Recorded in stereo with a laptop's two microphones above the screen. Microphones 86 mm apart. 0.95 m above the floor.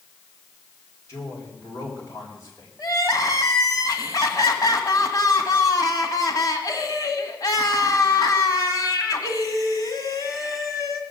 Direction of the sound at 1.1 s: 35° left (ahead or behind).